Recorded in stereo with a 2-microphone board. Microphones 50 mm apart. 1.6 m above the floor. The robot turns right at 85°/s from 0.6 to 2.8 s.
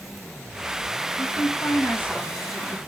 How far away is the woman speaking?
About 1.5 m.